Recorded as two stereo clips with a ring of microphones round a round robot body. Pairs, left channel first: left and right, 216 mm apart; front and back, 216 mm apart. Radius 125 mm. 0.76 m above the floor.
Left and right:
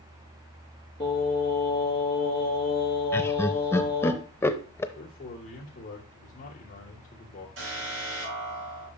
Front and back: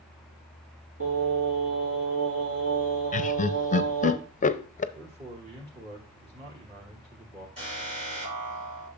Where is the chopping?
No chopping in this recording.